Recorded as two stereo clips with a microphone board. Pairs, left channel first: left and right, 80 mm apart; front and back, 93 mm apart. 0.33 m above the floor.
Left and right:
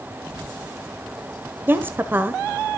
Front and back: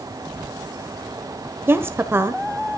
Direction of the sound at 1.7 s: 135° right.